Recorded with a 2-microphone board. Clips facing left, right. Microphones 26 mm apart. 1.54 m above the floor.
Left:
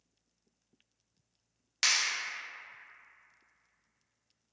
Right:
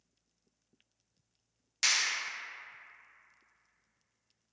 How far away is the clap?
About 0.7 m.